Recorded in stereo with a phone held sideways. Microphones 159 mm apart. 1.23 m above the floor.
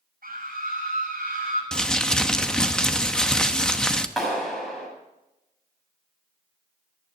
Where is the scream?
85° right, 8.5 m.